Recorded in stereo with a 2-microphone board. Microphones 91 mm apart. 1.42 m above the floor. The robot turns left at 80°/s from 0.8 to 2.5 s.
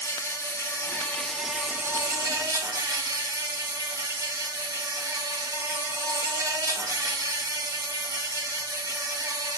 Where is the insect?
50° left, 0.7 m; by 9.6 s 85° right, 0.7 m.